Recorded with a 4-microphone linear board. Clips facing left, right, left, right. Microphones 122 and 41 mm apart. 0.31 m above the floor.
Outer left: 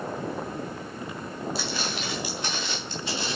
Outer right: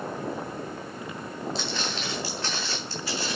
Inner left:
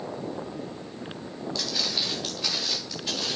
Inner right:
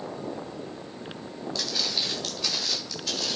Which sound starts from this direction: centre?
Footsteps, at 1.6 s.